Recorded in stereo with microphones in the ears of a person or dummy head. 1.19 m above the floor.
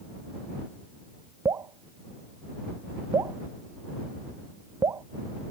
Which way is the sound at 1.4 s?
20° right (ahead or behind).